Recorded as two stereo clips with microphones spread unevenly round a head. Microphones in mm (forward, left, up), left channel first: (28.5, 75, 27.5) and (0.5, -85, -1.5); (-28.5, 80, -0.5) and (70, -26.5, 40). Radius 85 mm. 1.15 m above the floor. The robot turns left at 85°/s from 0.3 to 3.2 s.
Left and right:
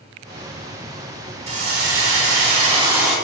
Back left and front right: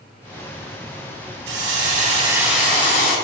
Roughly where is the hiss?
Ahead right.